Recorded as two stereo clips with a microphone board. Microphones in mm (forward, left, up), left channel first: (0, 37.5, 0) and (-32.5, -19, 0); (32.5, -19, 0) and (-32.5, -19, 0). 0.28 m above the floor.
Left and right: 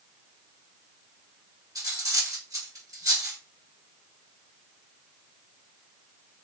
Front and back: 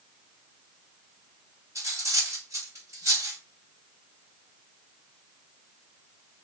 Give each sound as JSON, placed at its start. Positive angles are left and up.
{"t": 1.8, "sound": "cutlery clinking", "azimuth_deg": -140, "distance_m": 2.5}